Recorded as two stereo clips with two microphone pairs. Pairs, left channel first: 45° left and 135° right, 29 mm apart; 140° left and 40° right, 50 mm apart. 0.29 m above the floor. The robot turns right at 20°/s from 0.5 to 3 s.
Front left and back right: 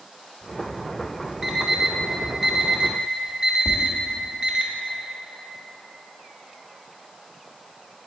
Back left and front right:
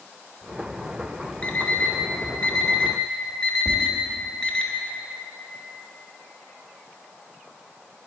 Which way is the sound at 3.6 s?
80° right.